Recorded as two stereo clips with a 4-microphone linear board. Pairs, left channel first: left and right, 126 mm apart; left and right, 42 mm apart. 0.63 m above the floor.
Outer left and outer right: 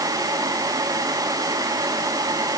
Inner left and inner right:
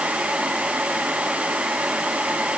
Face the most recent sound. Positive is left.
No sound to turn to.